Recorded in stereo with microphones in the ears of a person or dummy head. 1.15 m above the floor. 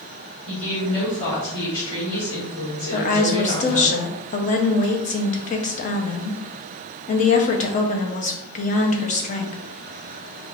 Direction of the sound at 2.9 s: 40° left (ahead or behind).